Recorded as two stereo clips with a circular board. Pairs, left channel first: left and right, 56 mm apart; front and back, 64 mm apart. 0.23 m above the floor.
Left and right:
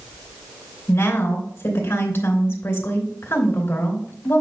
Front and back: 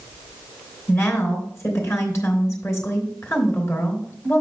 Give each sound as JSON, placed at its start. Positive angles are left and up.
{"t": 0.9, "sound": "a woman speaking", "azimuth_deg": 45, "distance_m": 3.0}